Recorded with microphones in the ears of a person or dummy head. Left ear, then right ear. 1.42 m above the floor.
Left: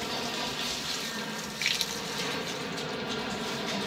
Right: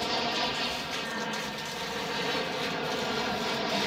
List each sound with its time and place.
0.0 s an aircraft: 25° right (ahead or behind)